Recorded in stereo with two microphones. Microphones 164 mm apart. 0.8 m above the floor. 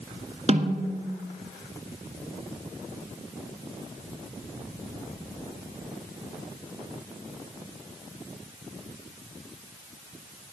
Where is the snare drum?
45° right (ahead or behind), 1.4 m.